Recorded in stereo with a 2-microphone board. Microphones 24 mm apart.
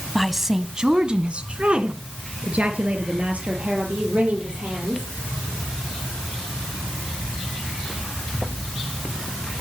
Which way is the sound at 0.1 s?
5° left (ahead or behind).